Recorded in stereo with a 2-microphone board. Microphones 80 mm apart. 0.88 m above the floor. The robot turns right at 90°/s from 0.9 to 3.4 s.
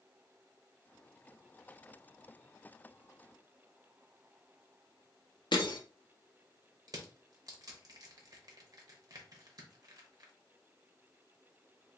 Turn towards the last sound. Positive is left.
turn(degrees=-50)  # may be behind; listen again after turning